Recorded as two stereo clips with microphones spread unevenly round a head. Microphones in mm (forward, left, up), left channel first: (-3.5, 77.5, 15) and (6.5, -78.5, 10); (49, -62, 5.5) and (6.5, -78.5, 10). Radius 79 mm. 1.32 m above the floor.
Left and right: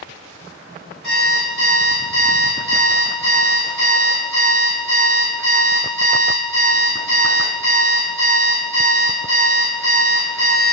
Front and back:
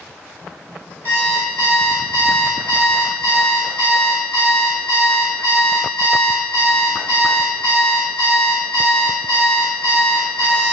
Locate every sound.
1.0 s an alarm clock: 95° left, 1.3 m